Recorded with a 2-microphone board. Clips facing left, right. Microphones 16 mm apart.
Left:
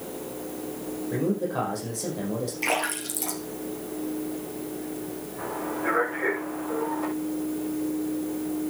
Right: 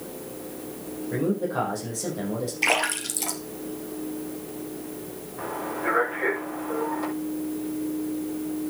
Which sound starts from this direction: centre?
A man speaking, at 1.1 s.